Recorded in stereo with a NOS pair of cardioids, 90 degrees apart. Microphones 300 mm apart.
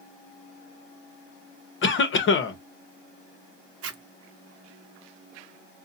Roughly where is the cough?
Ahead left.